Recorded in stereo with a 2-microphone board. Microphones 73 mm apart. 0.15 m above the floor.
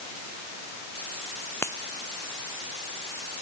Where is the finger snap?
35° left (ahead or behind).